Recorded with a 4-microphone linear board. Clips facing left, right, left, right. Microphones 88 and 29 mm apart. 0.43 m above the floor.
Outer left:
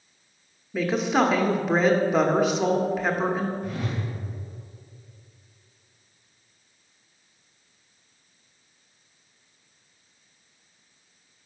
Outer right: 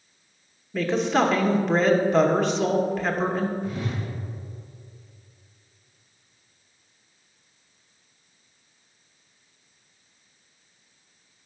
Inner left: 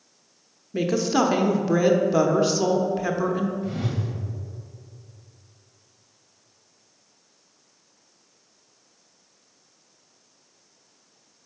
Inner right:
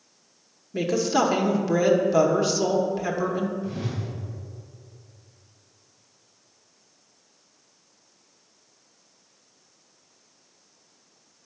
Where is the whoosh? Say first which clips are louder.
Outer right 1 dB, inner left 2 dB; 60° left (ahead or behind), 1.8 m.